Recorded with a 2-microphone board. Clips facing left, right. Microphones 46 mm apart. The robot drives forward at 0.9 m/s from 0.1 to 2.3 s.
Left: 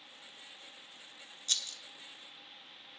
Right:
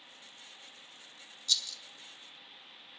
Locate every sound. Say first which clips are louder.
1.5 s a rattle: right 3 dB; 45° left (ahead or behind), 1.1 m; by 1.8 s 40° left (ahead or behind), 1.2 m